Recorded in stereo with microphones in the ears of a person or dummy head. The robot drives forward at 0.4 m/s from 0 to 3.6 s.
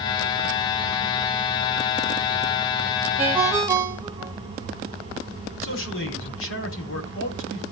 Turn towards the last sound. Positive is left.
turn(degrees=60)  # may be behind; listen again after turning